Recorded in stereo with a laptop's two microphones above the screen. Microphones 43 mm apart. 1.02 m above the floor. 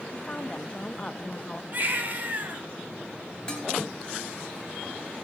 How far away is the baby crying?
About 5 m.